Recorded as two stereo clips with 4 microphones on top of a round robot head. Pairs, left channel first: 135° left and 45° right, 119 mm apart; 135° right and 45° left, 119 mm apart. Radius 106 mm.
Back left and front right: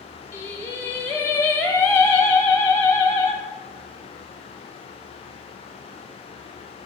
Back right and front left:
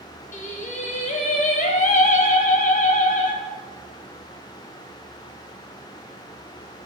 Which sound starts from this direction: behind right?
Singing, at 0.3 s.